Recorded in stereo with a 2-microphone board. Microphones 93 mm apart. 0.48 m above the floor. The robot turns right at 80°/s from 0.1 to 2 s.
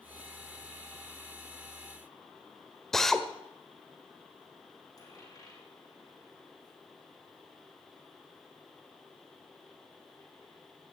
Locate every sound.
2.9 s a drill: 5° left (ahead or behind), 1.3 m
5.0 s a dropped coin: 40° left (ahead or behind), 8 m